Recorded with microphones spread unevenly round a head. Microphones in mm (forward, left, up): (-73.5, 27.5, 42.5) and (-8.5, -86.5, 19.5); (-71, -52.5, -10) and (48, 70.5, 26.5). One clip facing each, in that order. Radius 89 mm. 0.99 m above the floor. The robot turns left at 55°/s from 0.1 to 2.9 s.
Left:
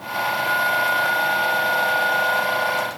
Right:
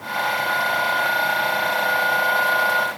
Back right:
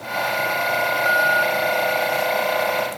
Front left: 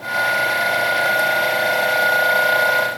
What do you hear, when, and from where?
Only background noise.